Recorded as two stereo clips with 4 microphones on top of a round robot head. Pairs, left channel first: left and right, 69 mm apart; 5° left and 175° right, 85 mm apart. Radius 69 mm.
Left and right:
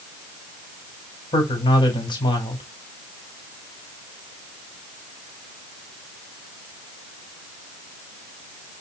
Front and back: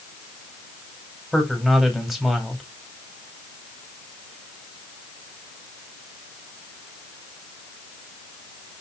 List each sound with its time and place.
1.3 s a man speaking: 95° left, 3.5 m